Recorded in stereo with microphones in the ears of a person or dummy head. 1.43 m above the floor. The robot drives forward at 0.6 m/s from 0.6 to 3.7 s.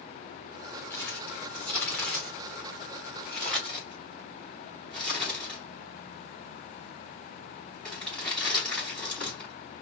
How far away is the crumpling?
About 2 m.